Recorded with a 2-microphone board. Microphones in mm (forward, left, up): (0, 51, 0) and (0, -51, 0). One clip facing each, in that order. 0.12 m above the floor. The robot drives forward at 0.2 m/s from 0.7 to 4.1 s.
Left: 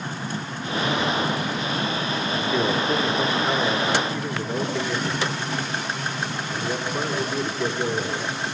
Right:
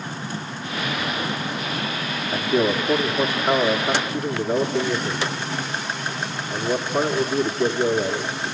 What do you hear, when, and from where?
2.3 s a man speaking: 35° right (ahead or behind), 1.6 m